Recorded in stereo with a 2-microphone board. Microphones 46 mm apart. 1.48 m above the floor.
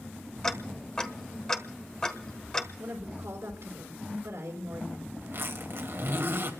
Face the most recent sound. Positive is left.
turn(degrees=-60)  # may be behind; listen again after turning